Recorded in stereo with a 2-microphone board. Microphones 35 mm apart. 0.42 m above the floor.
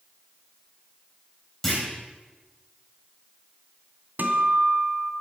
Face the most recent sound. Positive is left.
turn(degrees=-60)  # may be behind; listen again after turning